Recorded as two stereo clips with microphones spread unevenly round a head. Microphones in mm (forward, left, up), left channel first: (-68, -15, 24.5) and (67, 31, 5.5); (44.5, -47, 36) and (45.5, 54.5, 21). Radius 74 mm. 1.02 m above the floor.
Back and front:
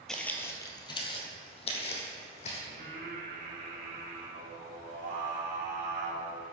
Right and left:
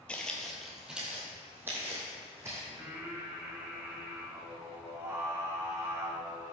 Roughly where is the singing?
Ahead left.